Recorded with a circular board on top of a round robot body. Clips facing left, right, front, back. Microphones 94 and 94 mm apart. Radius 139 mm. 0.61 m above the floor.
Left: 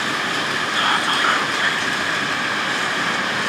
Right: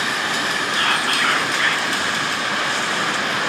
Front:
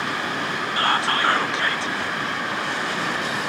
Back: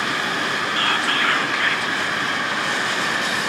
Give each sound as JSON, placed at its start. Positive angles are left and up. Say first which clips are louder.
{"t": 0.8, "sound": "whispering", "louder": "left 3 dB, front 3 dB", "azimuth_deg": 40, "distance_m": 0.7}